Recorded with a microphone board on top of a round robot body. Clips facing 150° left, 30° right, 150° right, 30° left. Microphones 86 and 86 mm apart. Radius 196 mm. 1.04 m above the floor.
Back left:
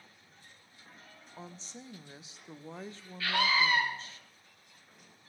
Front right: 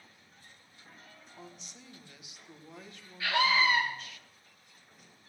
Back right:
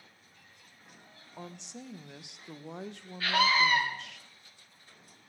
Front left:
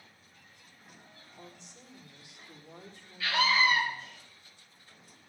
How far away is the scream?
About 7.5 m.